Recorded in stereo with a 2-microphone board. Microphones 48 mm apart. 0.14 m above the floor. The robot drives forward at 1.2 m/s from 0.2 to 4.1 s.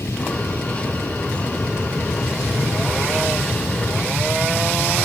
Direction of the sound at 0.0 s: 65° left (ahead or behind).